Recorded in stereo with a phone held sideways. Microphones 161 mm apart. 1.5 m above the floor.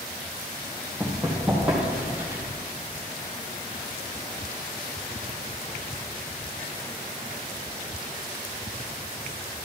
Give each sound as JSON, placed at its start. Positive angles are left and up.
{"t": 1.0, "sound": "running footsteps", "side_deg": 5, "distance_m": 3.0}